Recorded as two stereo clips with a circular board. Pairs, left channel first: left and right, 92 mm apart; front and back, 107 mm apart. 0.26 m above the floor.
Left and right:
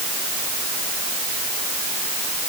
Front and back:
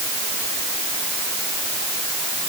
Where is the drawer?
I don't hear a drawer.